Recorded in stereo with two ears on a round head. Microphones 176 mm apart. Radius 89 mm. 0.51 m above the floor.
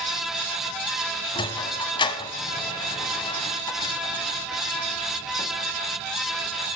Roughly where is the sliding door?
Left.